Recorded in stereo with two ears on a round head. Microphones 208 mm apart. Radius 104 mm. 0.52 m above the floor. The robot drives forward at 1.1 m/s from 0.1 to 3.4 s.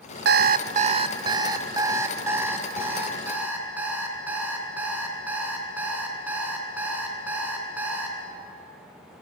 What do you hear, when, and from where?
0.2 s an alarm clock: 50° right (ahead or behind), 0.7 m; by 8.2 s 10° right (ahead or behind), 3.5 m